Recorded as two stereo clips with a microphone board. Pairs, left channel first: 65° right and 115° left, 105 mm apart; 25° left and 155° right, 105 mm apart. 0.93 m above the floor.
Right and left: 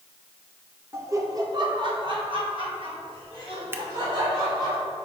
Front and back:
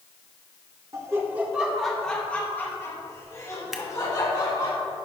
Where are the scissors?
125° left, 0.6 m.